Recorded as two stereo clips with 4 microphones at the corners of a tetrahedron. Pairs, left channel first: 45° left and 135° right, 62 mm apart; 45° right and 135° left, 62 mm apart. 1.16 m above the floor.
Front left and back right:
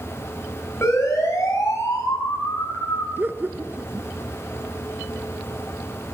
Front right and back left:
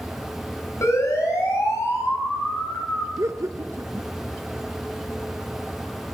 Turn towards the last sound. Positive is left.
turn(degrees=170)